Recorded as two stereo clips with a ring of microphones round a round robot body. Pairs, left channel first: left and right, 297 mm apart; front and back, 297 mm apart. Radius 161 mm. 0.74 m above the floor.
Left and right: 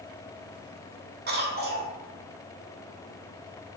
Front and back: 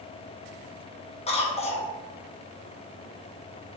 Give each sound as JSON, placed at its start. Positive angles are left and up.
{"t": 1.3, "sound": "a cough", "azimuth_deg": -55, "distance_m": 1.1}